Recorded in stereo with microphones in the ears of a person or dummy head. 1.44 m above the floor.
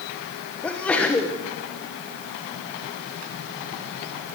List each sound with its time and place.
0.6 s a sneeze: 10° left (ahead or behind), 1.0 m